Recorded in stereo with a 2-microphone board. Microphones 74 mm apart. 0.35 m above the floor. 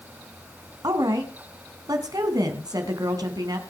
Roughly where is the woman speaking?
Right.